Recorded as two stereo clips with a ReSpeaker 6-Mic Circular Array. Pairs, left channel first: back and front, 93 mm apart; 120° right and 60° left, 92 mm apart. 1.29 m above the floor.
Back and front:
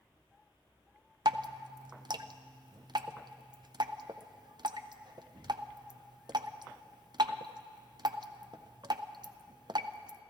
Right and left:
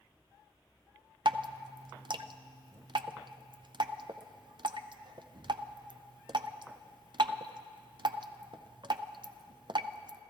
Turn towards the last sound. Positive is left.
turn(degrees=35)